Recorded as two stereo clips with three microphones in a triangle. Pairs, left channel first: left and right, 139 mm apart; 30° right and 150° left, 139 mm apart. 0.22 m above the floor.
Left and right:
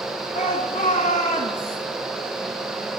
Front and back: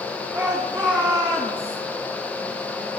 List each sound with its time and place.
0.3 s a shout: 70° left, 3.5 m